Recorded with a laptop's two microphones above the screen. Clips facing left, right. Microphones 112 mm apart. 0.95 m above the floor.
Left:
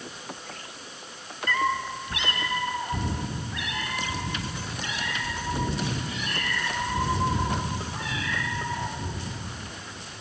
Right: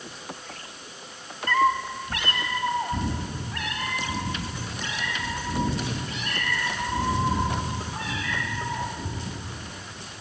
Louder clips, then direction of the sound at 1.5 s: Right 4 dB; 40° right (ahead or behind).